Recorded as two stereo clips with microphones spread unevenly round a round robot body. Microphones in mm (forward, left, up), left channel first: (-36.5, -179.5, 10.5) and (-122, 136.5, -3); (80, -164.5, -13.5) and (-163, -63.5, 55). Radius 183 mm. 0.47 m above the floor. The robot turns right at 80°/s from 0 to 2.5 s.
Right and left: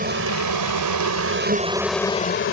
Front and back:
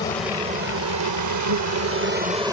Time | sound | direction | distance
0.0 | an insect | 40° left | ?